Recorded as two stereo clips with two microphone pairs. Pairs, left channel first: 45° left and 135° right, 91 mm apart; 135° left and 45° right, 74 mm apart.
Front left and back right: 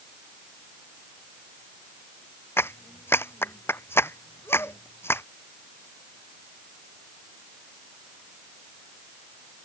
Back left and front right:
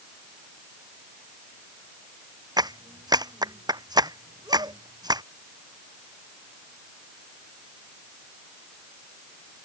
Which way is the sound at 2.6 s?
20° right.